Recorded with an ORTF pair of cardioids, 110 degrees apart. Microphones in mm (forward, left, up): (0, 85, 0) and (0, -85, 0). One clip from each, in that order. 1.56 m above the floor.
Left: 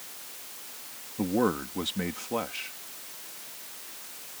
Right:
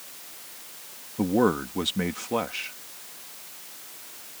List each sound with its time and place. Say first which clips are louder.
1.2 s a man speaking: right 4 dB; 25° right